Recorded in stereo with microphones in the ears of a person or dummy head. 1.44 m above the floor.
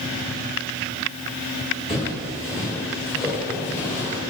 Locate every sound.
1.9 s footsteps: 5° right (ahead or behind), 1.7 m; by 4.2 s 10° right (ahead or behind), 2.5 m